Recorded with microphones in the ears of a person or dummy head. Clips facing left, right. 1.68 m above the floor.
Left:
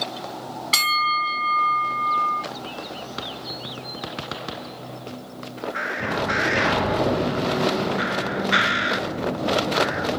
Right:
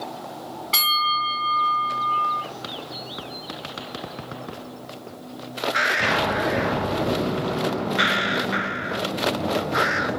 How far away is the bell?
About 2.5 m.